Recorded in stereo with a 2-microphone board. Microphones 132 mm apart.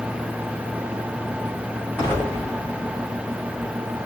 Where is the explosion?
15° left (ahead or behind), 3.5 m.